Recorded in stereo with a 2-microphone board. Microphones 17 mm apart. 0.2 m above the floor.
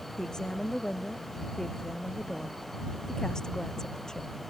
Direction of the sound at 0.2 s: 35° left (ahead or behind).